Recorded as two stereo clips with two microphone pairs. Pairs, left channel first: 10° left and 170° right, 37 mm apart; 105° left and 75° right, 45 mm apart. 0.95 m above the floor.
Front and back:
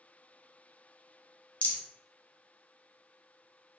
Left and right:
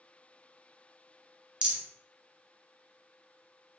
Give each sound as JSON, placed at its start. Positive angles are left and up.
{"t": 1.6, "sound": "a rattle", "azimuth_deg": -20, "distance_m": 0.9}